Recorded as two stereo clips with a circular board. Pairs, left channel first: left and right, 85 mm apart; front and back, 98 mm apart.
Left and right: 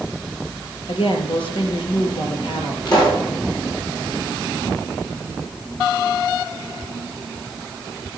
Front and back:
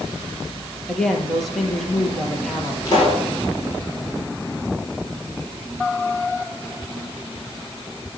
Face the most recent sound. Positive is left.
turn(degrees=50)